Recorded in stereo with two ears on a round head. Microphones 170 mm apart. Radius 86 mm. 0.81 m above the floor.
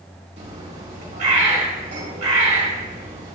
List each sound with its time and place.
0.4 s a bird: 35° right (ahead or behind), 1.3 m